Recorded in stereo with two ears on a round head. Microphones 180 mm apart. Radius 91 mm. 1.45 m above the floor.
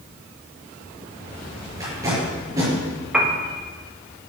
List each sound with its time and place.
1.8 s tape being pulled: 15° right (ahead or behind), 5 m
3.1 s a piano: 5° right (ahead or behind), 1.4 m